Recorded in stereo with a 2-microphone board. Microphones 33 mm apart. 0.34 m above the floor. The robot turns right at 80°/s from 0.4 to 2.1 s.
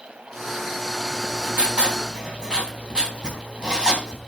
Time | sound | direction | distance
1.1 | writing | 110° right | 3 m